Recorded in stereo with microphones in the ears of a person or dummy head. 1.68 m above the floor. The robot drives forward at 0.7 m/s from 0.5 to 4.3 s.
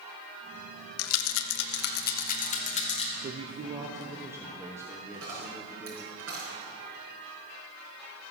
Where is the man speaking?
40° right (ahead or behind), 0.6 m; by 6.1 s 20° right (ahead or behind), 1.3 m.